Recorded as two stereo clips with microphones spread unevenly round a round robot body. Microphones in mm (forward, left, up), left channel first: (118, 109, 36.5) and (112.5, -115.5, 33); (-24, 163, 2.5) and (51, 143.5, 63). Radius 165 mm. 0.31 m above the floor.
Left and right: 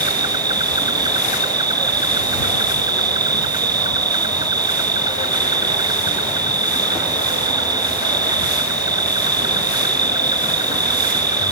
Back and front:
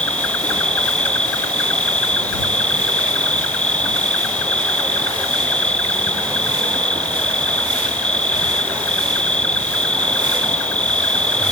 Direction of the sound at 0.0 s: 160° right.